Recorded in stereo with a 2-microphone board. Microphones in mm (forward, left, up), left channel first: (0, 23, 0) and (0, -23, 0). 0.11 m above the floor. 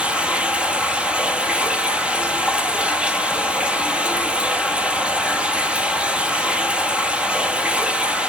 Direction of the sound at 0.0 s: 30° right (ahead or behind).